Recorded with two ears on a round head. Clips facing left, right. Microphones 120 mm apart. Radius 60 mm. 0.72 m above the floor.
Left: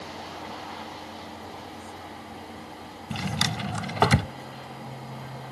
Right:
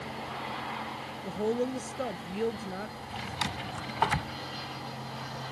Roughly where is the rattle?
I don't hear a rattle.